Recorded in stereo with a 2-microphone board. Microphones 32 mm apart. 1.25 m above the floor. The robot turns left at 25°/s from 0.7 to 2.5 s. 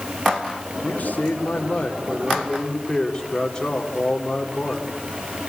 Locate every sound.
0.8 s a man speaking: 65° left, 3 m; by 4.9 s 20° left, 3 m